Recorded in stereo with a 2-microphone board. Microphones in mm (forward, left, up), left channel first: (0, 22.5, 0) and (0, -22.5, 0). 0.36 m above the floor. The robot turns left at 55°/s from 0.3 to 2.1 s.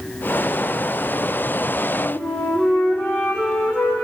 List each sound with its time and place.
2.0 s a flute: 60° left (ahead or behind), 5.5 m; by 4.0 s 55° left (ahead or behind), 5.5 m